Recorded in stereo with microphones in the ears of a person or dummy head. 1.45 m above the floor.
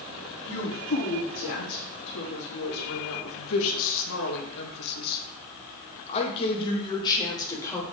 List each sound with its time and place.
0.5 s a woman speaking: 55° left (ahead or behind), 3.5 m; by 7.8 s 20° left (ahead or behind), 3 m